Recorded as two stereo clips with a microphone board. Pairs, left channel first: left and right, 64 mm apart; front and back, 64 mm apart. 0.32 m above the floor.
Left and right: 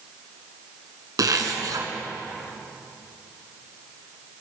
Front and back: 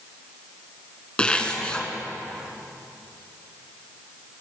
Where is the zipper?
75° right, 2.5 m.